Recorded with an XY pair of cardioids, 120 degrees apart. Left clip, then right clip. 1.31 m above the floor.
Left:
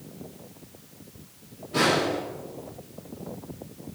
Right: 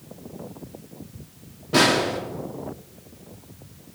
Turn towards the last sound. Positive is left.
turn(degrees=-70)